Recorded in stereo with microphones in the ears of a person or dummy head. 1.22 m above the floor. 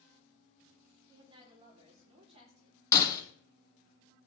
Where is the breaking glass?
20° left (ahead or behind), 2.5 m.